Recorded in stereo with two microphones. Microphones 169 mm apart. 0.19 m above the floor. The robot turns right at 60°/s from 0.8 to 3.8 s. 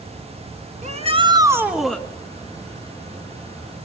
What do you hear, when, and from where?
0.8 s a shout: 65° right, 1.8 m; by 2.0 s 10° left, 1.8 m